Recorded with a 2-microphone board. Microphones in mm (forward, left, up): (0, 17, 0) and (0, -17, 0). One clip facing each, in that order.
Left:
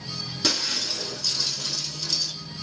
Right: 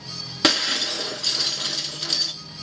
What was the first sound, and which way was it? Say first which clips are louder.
Breaking glass: right 6 dB; 55° right (ahead or behind).